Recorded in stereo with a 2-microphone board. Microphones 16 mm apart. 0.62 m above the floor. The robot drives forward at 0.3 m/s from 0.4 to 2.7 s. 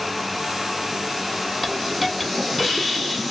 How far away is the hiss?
About 0.6 m.